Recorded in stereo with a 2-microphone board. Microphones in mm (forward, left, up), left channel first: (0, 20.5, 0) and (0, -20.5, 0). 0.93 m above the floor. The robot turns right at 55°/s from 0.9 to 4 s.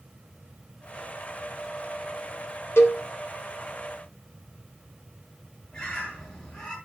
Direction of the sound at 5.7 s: 25° left (ahead or behind).